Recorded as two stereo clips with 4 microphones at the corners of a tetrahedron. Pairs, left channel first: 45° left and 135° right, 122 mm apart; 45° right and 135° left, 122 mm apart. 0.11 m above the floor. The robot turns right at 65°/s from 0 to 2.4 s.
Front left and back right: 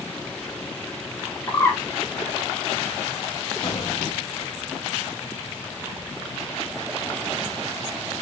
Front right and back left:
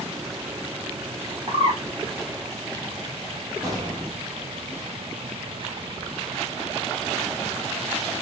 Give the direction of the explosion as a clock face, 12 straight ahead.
9 o'clock.